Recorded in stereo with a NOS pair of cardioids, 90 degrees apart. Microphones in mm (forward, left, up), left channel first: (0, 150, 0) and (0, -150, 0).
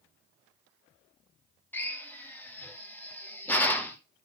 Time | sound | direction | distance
1.7 | a drill | 5° left | 2.0 m